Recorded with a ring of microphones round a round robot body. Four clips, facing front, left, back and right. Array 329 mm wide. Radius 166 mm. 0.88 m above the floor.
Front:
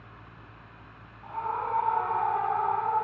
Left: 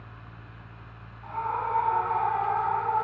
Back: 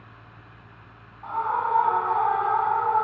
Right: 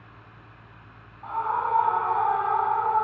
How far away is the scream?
About 7.5 m.